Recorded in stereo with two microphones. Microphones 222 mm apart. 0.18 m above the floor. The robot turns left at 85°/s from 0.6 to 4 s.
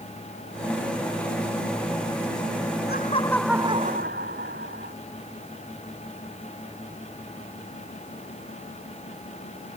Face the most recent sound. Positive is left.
turn(degrees=-45)